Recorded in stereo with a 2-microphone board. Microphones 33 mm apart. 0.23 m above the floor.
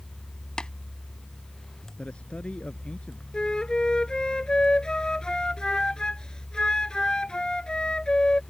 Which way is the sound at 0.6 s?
25° left (ahead or behind).